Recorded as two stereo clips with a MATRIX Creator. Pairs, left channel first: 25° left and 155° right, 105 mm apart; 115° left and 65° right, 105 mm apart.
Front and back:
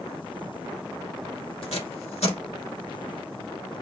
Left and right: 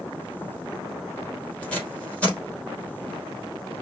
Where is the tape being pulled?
35° left, 3 m.